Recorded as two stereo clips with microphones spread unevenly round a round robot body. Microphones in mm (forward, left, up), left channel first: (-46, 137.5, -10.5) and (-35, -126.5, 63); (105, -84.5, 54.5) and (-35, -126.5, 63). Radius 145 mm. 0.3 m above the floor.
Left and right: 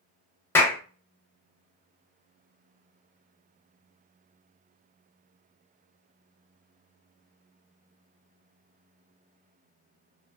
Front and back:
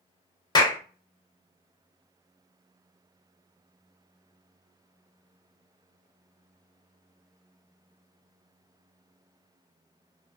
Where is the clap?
45° left, 0.7 m.